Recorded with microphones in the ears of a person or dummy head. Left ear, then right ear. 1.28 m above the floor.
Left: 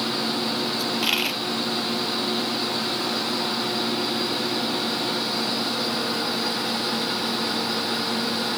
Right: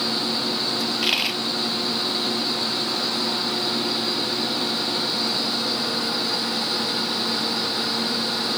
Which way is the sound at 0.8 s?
5° right (ahead or behind).